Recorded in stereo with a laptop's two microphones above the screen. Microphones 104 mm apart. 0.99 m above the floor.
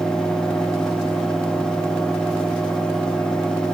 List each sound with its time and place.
0.0 s a fan: 5° left (ahead or behind), 0.7 m